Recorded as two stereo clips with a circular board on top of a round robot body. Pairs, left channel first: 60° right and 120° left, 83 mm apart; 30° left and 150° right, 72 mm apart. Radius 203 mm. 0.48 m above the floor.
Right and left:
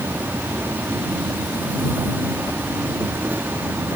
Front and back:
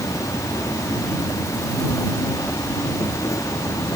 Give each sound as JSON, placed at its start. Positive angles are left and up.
{"t": 0.0, "sound": "an insect", "azimuth_deg": 55}